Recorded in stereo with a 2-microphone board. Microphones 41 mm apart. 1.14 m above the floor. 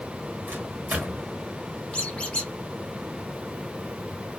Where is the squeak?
25° left (ahead or behind), 0.8 m.